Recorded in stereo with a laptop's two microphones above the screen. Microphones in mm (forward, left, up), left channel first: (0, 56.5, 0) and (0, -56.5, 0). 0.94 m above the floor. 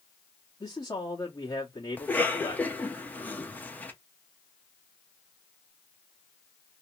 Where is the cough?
15° left (ahead or behind), 1.1 m.